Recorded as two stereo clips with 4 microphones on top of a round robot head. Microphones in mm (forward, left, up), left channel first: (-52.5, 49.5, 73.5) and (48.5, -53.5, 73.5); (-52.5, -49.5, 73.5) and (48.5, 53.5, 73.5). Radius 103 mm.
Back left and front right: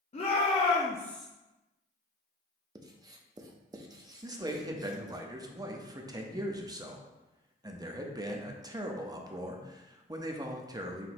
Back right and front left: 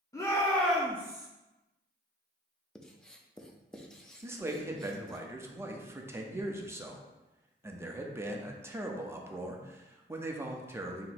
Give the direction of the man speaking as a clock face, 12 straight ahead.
12 o'clock.